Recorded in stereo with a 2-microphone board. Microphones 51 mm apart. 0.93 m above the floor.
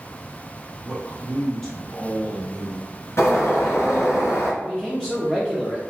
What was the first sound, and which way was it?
A man speaking, 10° left (ahead or behind).